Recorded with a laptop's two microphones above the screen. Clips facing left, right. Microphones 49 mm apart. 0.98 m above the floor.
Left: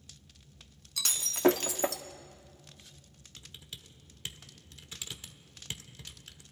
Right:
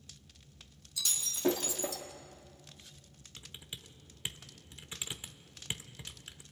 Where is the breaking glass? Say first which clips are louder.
Left 6 dB; 65° left (ahead or behind), 1.1 m.